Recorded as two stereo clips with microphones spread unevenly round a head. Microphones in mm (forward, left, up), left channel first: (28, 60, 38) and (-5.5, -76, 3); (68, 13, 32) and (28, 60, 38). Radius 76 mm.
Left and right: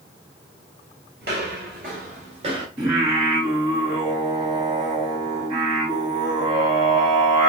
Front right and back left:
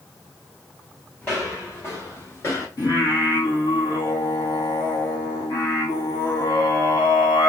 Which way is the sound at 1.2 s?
130° right.